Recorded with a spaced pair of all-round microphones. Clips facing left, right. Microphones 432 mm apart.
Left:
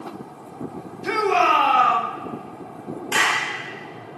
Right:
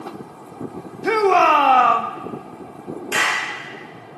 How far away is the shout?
About 0.6 m.